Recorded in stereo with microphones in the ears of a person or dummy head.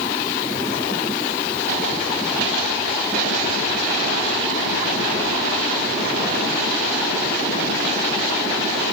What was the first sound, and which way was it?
Only background noise.